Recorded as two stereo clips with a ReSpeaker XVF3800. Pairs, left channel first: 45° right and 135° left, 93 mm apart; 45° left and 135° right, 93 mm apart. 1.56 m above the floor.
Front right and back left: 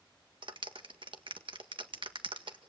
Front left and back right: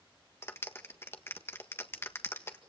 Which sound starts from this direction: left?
A clap, at 0.4 s.